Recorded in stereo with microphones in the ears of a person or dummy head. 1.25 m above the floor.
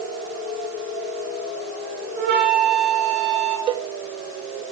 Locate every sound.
2.1 s a flute: 55° right (ahead or behind), 7 m
3.7 s a cowbell: 25° right (ahead or behind), 0.9 m